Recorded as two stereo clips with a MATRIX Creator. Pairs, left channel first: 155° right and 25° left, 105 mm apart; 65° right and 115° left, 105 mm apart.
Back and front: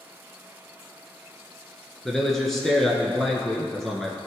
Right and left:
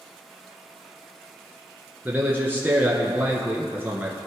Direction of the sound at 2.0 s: 125° left.